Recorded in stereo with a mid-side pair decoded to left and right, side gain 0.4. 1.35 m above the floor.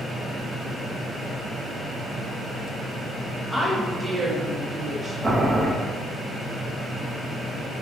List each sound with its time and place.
3.5 s a woman speaking: 5° right, 0.6 m; by 5.1 s 35° right, 1.3 m
5.2 s boiling: 30° right, 0.8 m